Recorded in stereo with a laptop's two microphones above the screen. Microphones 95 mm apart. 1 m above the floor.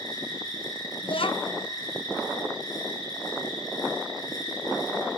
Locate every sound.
0.0 s an insect: 40° left (ahead or behind), 6.5 m
1.0 s a child speaking: 65° left (ahead or behind), 0.7 m